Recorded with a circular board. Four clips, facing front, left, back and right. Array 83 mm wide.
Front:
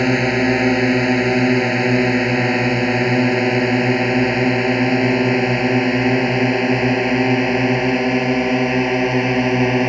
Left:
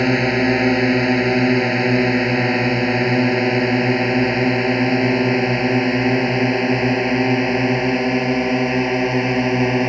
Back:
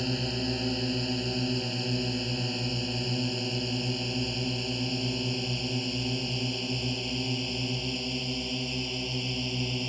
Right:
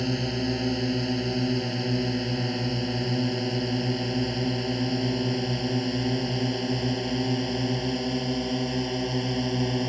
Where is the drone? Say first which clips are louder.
Left 11 dB, front 15 dB; 45° left; by 9.9 s 35° left.